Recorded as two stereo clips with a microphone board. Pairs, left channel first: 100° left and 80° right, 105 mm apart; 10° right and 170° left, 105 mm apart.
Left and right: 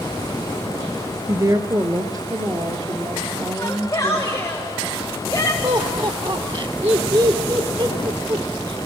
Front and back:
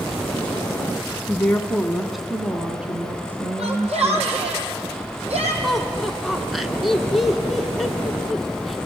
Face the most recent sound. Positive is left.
turn(degrees=-100)